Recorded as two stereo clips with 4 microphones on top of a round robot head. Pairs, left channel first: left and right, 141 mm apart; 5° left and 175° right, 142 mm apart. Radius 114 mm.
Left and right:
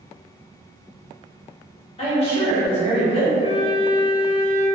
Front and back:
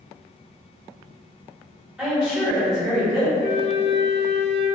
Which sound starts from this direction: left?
A woman speaking, at 2.0 s.